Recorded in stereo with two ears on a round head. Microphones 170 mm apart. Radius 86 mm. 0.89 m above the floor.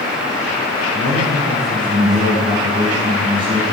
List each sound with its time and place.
0.9 s a man speaking: 40° right (ahead or behind), 8 m